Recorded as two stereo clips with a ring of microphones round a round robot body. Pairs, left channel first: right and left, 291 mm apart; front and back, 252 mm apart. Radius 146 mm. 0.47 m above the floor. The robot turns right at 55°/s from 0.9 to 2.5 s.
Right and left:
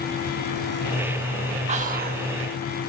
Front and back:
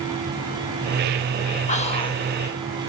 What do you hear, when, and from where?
1.7 s whispering: 35° left, 0.9 m; by 2.2 s 70° left, 0.9 m